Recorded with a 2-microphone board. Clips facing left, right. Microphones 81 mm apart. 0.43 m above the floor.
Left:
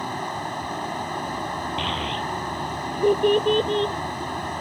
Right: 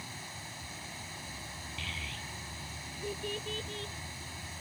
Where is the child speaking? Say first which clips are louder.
Left 16 dB; 65° left (ahead or behind).